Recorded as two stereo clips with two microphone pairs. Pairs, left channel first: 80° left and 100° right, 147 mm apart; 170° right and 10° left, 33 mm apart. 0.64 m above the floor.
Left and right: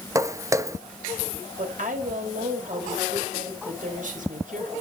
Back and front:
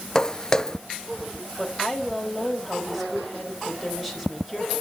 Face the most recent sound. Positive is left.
turn(degrees=-75)